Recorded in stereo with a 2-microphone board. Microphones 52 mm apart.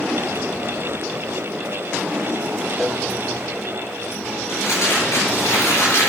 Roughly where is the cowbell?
Centre.